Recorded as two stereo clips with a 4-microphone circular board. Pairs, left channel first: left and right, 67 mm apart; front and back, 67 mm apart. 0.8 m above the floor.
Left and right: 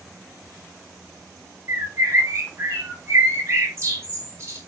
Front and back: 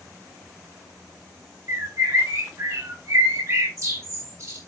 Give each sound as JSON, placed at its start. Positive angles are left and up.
{"t": 1.7, "sound": "a bird", "azimuth_deg": -140, "distance_m": 5.5}